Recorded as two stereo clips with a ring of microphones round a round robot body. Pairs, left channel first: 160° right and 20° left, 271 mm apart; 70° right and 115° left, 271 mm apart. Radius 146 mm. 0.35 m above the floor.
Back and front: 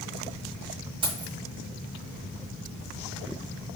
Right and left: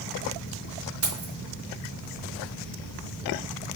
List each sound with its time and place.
1.0 s keys jangling: 95° left, 1.9 m